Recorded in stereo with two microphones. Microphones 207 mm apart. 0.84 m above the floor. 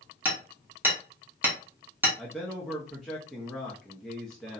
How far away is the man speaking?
About 0.6 m.